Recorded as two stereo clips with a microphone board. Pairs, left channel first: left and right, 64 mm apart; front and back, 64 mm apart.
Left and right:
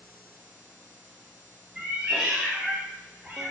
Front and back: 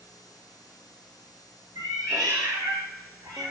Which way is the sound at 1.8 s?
170° right.